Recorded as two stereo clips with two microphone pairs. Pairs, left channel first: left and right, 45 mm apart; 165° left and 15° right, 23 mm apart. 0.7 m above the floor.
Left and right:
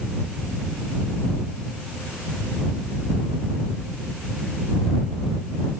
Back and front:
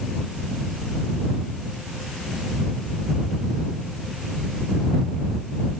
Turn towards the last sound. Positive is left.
No sound to turn to.